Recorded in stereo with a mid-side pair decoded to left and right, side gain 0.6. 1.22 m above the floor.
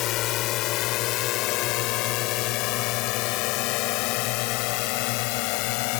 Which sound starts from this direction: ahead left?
A drone, at 0.0 s.